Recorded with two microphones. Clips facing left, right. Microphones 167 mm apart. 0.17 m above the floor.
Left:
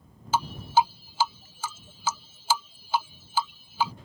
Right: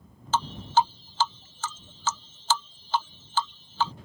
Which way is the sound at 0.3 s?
10° left (ahead or behind).